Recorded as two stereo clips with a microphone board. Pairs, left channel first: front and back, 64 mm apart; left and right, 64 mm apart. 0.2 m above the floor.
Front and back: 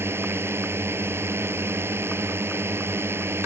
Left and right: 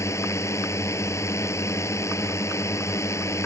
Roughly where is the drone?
Behind left.